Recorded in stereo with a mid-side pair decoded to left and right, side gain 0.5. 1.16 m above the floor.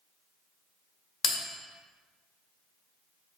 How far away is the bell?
About 1.2 m.